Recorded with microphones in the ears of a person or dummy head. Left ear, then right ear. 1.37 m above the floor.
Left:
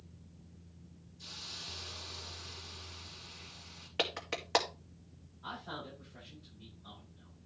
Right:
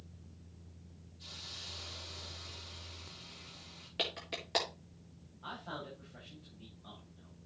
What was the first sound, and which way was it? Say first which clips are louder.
A hiss: left 2 dB; 40° left (ahead or behind).